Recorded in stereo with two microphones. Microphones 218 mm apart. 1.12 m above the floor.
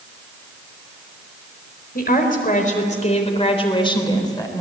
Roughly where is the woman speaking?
Left.